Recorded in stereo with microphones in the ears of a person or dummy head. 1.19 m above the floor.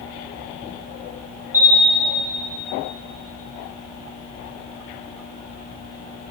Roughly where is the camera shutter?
Centre.